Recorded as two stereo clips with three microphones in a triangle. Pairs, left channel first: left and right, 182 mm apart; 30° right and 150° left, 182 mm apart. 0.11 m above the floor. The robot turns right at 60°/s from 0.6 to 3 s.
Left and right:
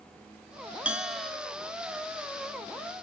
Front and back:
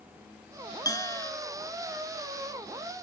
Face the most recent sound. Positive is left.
turn(degrees=110)